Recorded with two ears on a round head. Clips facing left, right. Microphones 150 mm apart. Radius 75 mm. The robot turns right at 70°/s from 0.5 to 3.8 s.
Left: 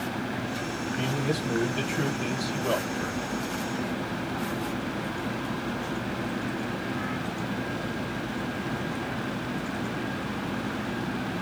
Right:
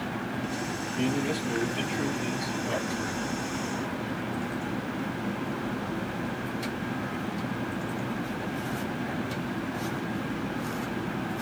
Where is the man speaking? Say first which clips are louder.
Right 2 dB; 10° right, 1.4 m; by 3.2 s 150° left, 1.4 m.